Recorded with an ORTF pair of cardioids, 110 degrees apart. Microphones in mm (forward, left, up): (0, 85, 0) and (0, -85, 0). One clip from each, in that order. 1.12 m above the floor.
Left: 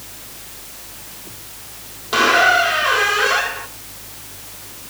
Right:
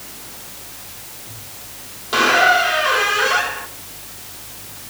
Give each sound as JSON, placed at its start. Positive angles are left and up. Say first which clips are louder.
{"t": 2.1, "sound": "a squeak", "louder": "even", "azimuth_deg": 10, "distance_m": 1.9}